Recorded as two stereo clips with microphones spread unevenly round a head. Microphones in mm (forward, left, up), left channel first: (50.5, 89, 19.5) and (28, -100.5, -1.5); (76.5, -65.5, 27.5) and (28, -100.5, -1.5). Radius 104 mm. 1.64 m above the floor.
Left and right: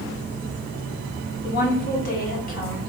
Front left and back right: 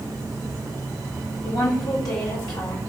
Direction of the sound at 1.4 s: 40° left.